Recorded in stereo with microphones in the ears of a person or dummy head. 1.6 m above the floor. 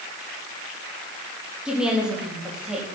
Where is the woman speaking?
5° right (ahead or behind), 3 m.